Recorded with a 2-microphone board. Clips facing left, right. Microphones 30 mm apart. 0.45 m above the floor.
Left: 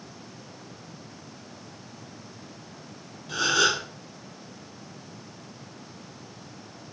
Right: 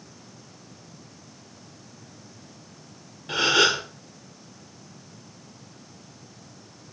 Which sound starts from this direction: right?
A gasp, at 3.3 s.